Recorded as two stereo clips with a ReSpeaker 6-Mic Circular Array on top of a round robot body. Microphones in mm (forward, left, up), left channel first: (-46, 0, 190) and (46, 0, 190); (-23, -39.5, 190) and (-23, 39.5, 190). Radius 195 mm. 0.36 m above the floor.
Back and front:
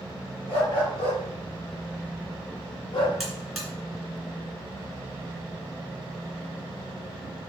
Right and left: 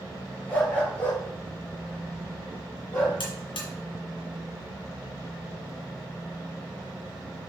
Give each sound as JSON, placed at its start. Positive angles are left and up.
{"t": 0.5, "sound": "a dog barking", "azimuth_deg": -160, "distance_m": 4.0}
{"t": 3.2, "sound": "a buzzer", "azimuth_deg": -90, "distance_m": 3.0}